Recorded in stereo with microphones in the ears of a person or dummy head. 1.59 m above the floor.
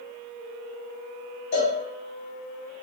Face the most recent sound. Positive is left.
turn(degrees=45)  # may be behind; listen again after turning